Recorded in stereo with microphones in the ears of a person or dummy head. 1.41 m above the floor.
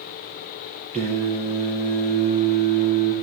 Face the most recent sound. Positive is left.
turn(degrees=-35)  # may be behind; listen again after turning